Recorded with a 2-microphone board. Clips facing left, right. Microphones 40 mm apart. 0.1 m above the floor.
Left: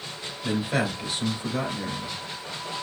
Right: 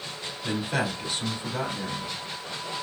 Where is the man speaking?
15° left (ahead or behind), 1.3 m.